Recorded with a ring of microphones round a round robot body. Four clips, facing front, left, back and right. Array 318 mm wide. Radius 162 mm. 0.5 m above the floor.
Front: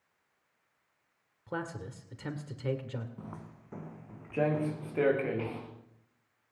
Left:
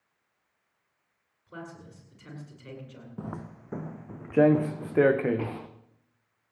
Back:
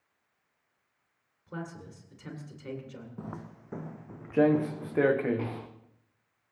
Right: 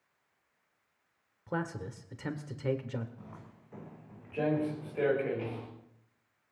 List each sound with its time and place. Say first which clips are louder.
1.5 s a man speaking: right 7 dB, front 3 dB; 60° right, 2 m
3.2 s footsteps: left 12 dB, back 4 dB; 110° left, 0.9 m; by 5.7 s 105° left, 2.5 m